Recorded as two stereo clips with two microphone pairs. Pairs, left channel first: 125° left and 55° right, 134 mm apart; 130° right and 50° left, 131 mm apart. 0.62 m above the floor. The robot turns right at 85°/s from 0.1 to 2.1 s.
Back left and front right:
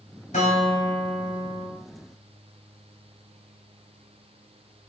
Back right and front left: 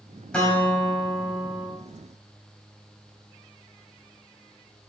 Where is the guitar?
145° left, 3 m; by 1.7 s 100° right, 3 m.